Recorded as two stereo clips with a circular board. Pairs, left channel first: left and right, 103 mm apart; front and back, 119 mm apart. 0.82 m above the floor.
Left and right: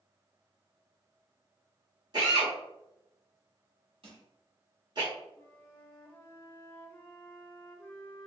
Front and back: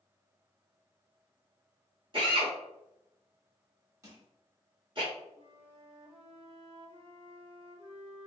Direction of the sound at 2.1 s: 135° right.